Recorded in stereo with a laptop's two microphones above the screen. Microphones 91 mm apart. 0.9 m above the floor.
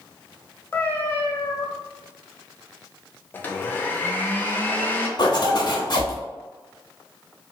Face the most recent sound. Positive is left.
turn(degrees=50)  # may be behind; listen again after turning